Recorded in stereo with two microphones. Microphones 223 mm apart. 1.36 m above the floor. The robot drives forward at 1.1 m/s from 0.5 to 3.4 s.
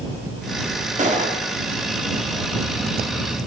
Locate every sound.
1.0 s a gunshot: 30° right (ahead or behind), 4 m